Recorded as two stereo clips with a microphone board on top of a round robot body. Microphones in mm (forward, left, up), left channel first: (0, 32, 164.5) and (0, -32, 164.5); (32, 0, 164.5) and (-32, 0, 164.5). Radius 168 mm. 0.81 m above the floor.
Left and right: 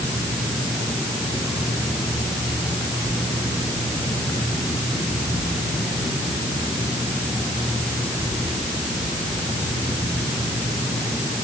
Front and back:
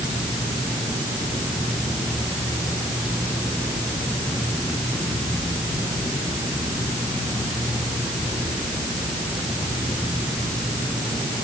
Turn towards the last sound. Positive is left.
No sound to turn to.